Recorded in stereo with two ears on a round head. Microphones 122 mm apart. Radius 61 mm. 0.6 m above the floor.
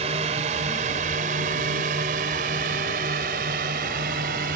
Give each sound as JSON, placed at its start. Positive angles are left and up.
{"t": 0.0, "sound": "a drone", "side_deg": -50}